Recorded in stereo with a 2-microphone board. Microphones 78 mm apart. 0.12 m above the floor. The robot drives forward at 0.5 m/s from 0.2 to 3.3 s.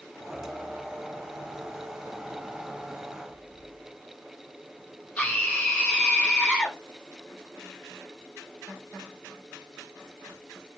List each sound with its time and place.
5.2 s a scream: 20° left (ahead or behind), 5 m